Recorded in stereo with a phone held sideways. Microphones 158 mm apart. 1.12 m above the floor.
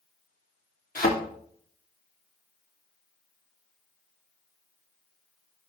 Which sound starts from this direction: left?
A thud, at 0.9 s.